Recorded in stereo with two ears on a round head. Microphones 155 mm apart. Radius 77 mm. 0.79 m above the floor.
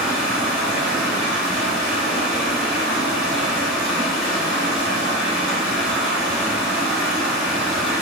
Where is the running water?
10° right (ahead or behind), 1.6 m.